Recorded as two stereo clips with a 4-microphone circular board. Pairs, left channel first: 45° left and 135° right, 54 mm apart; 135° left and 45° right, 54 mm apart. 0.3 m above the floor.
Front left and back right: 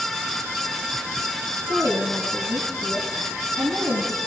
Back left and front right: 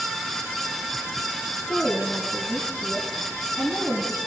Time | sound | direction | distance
1.7 | a woman speaking | 165° right | 3 m